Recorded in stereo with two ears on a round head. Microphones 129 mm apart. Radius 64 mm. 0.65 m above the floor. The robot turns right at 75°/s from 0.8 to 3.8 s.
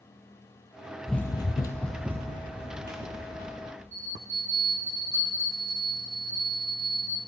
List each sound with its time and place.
1.1 s running footsteps: centre (ahead or behind), 0.7 m; by 3.6 s 45° right (ahead or behind), 3 m
3.9 s a bell: 20° right (ahead or behind), 5 m